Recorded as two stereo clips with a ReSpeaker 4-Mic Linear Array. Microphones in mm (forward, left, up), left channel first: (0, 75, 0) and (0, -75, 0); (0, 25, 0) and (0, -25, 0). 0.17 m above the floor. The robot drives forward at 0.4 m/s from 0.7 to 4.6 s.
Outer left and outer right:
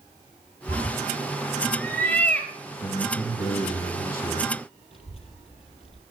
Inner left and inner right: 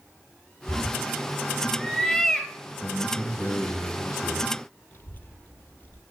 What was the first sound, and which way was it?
A cat meowing, 15° left (ahead or behind).